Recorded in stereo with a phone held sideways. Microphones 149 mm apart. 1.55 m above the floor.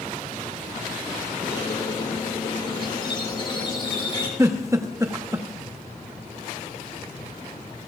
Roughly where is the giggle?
Right.